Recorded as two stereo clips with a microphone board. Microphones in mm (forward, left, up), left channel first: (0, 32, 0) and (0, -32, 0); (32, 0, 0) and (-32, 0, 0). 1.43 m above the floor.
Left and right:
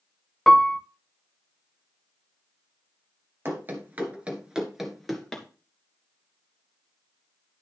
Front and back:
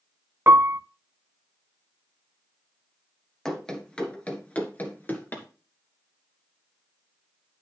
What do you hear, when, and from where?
0.5 s a piano: 170° left, 0.6 m
3.5 s running footsteps: 75° right, 1.7 m; by 5.5 s 15° left, 1.6 m